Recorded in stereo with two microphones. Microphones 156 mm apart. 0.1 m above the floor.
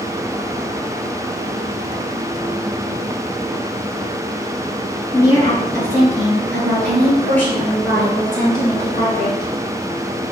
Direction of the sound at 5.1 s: 25° left (ahead or behind).